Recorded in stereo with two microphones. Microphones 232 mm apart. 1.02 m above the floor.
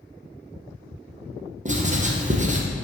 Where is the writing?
30° right (ahead or behind), 0.7 m.